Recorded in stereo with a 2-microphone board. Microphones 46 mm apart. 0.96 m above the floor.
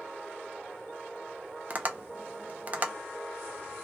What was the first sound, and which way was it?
Tapping, 35° right (ahead or behind).